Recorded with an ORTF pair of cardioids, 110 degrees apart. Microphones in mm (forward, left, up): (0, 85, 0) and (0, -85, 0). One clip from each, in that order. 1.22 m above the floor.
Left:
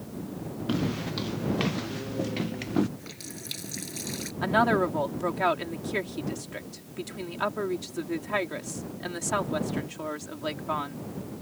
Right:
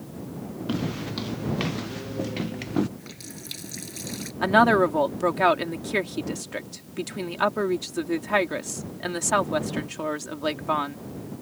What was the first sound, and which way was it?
Footsteps, straight ahead.